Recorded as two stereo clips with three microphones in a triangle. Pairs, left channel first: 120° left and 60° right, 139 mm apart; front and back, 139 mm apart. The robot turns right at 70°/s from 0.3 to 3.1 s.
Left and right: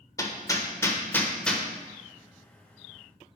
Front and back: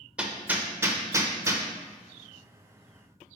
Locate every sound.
0.2 s hammering: 110° left, 0.5 m; by 1.6 s 155° right, 0.5 m